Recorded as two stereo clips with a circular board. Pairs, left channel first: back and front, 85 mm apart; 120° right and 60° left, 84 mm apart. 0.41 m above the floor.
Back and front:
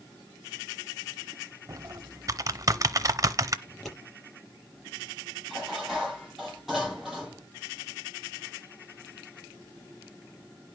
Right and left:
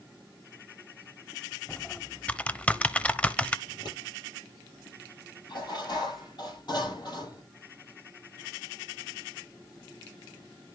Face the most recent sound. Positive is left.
turn(degrees=-85)